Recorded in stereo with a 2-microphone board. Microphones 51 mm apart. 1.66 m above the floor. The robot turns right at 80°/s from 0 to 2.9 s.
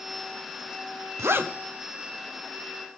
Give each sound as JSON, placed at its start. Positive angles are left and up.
{"t": 1.2, "sound": "a zipper", "side_deg": -60, "distance_m": 0.8}